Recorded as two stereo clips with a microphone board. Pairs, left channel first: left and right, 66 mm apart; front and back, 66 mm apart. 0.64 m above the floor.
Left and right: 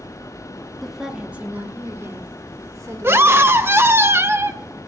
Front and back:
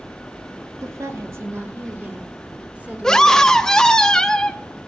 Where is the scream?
75° right, 0.7 m.